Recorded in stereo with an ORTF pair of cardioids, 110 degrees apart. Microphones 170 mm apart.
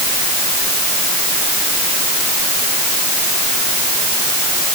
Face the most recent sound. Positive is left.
No sound to turn to.